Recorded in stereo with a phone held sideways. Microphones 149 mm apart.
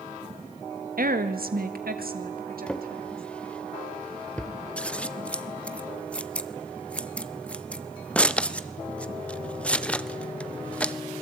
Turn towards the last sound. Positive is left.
turn(degrees=10)  # may be behind; listen again after turning